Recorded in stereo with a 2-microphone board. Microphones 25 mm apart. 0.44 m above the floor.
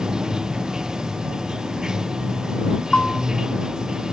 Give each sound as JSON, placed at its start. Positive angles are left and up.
{"t": 0.0, "sound": "running water", "side_deg": -25}
{"t": 2.9, "sound": "a bell", "side_deg": 40}